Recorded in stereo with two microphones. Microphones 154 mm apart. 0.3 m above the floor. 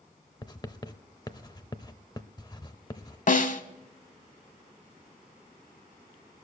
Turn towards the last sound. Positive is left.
turn(degrees=55)  # may be behind; listen again after turning